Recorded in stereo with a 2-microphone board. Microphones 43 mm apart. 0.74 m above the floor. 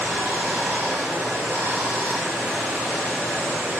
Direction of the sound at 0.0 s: 70° right (ahead or behind).